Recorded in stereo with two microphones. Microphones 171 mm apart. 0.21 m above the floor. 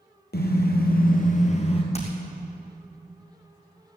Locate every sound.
0.3 s a car horn: 75° left (ahead or behind), 2.5 m; by 1.8 s 35° left (ahead or behind), 2 m
1.9 s hammering: 40° left (ahead or behind), 3.5 m